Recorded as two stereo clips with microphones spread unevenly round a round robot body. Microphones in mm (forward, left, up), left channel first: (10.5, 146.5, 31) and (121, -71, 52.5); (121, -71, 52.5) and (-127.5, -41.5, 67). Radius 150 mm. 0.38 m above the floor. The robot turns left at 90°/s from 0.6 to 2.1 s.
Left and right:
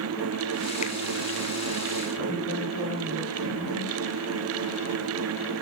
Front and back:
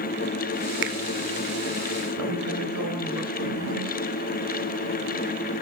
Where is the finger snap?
160° left, 1.2 m; by 1.0 s 150° left, 1.2 m.